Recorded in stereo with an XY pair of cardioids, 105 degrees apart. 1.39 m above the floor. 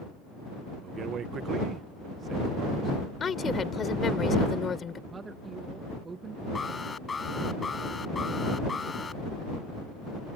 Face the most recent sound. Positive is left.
turn(degrees=30)